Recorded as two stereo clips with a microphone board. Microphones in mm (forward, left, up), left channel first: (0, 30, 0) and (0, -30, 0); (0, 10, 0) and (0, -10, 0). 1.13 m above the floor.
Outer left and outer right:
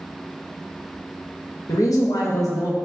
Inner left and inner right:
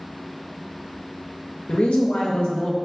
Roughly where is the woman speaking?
Left.